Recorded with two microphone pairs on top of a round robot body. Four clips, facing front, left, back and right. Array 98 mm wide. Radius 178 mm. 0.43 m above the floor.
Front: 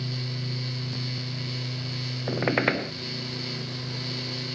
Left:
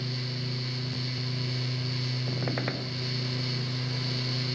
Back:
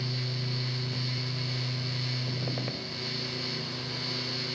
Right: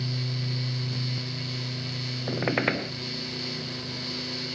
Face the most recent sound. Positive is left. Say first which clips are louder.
# right 7 dB, front 14 dB
turn(degrees=-25)